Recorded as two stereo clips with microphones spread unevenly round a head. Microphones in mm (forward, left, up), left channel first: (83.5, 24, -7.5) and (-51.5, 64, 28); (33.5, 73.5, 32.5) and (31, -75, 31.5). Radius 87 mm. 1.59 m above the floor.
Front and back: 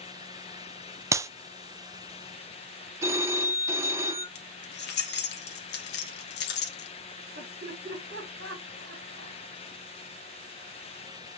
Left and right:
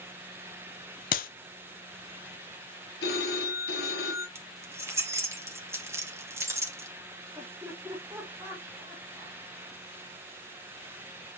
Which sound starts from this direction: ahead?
Keys jangling, at 4.3 s.